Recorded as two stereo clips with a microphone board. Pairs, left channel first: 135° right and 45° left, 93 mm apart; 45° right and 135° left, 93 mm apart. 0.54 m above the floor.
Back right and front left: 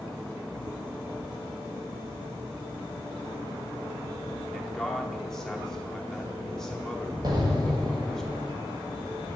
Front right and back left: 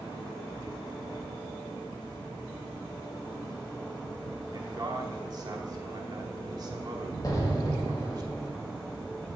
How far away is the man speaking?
About 1.1 m.